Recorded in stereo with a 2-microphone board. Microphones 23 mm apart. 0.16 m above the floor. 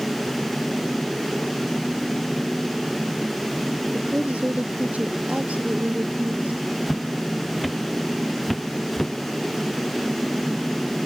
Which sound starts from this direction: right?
A woman speaking, at 3.9 s.